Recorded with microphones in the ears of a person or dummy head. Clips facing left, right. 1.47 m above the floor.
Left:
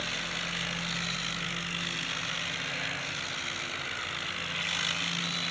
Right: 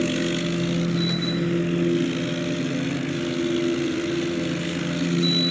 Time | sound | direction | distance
0.0 | a machine running | 80° right | ?